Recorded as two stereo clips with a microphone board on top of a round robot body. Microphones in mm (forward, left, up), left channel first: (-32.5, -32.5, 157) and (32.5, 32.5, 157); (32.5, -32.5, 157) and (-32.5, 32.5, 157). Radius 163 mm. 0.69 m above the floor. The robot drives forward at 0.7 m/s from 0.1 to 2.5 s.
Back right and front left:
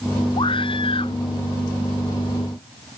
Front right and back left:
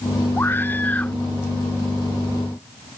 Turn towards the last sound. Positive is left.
turn(degrees=-135)